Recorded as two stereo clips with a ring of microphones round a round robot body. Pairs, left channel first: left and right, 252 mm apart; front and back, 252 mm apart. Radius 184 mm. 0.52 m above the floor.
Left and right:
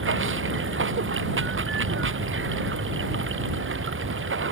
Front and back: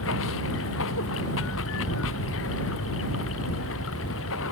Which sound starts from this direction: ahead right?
Running water, at 0.0 s.